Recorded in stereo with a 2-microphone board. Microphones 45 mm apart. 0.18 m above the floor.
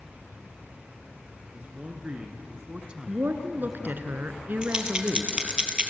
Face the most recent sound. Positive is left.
turn(degrees=-20)  # may be behind; listen again after turning